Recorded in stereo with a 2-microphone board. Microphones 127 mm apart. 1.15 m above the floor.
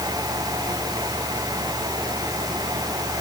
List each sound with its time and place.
Only background noise.